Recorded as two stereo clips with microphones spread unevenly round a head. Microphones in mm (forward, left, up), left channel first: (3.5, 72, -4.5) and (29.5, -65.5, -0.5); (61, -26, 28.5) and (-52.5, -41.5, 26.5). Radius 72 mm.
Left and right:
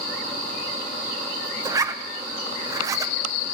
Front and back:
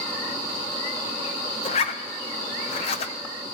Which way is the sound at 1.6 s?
15° right.